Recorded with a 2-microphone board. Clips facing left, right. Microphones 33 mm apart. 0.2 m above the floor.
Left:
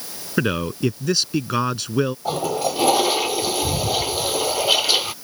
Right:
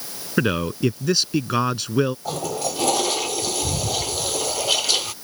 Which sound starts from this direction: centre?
A man speaking, at 0.4 s.